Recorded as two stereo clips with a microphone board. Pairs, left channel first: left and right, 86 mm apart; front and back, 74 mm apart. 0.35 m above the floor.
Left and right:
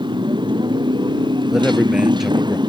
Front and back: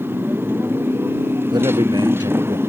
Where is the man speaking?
175° right.